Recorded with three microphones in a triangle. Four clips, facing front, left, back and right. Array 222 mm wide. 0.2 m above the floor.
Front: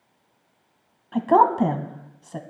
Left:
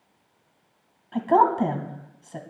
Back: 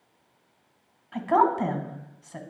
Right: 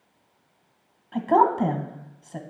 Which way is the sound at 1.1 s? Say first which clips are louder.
Even, front 5 dB; straight ahead.